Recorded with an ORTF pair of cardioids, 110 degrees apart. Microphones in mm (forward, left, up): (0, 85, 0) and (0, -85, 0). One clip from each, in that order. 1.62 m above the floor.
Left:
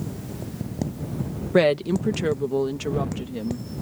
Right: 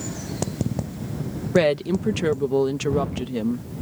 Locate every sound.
1.5 s a woman speaking: 5° left; by 3.7 s 35° right